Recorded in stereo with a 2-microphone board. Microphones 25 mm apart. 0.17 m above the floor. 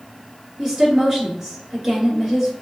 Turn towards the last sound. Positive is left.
turn(degrees=-10)  # may be behind; listen again after turning